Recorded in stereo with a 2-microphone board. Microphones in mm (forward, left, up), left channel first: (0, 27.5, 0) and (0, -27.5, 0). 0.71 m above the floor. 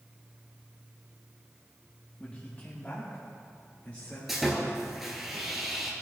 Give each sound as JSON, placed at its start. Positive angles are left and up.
{"t": 2.2, "sound": "a man speaking", "side_deg": 25, "distance_m": 1.2}
{"t": 4.3, "sound": "sawing", "side_deg": 0, "distance_m": 1.9}